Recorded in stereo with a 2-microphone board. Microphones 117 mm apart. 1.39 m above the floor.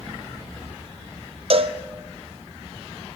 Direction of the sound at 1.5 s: 55° right (ahead or behind).